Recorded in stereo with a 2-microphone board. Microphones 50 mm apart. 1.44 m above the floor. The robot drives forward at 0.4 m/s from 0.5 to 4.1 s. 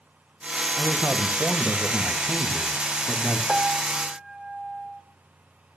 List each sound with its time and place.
0.8 s a man speaking: 40° right (ahead or behind), 1.5 m; by 3.4 s 25° right (ahead or behind), 2.5 m
3.5 s a piano: 10° right (ahead or behind), 1.3 m